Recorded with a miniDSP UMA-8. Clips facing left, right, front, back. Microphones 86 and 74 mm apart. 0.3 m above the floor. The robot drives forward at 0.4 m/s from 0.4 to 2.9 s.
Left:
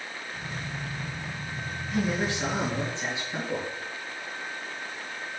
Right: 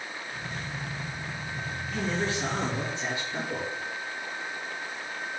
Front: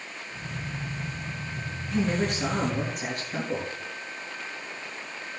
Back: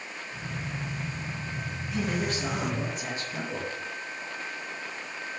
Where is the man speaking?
20° left, 7 m.